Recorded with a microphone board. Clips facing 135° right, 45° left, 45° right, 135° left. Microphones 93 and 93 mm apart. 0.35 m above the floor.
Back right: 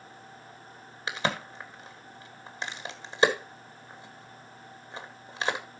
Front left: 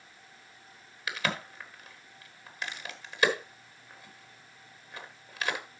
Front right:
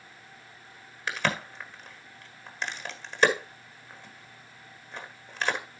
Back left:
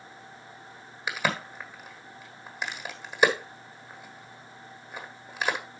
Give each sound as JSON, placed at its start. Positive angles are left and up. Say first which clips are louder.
{"t": 1.1, "sound": "a crack", "louder": "back right 3 dB, even", "azimuth_deg": -155, "distance_m": 1.4}